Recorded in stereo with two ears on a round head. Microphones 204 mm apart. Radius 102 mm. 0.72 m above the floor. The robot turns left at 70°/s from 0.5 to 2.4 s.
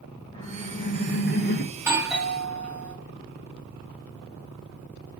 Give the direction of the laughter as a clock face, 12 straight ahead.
7 o'clock.